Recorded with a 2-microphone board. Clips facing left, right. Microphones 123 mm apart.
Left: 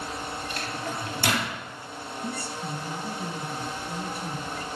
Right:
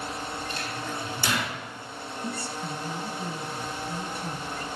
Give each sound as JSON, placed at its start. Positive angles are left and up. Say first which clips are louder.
{"t": 0.5, "sound": "a microwave", "louder": "left 1 dB", "side_deg": 65, "distance_m": 3.0}
{"t": 2.2, "sound": "a woman speaking", "louder": "even", "side_deg": 10, "distance_m": 1.4}